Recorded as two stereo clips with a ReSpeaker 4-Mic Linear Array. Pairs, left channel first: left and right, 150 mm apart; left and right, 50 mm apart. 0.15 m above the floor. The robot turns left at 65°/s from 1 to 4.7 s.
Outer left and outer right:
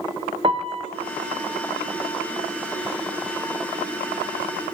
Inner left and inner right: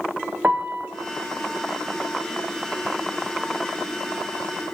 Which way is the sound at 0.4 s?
35° right (ahead or behind).